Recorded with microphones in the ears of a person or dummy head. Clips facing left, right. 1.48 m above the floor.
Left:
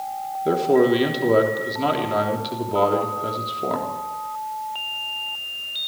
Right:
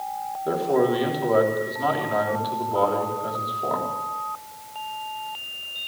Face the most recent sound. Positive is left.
turn(degrees=35)  # may be behind; listen again after turning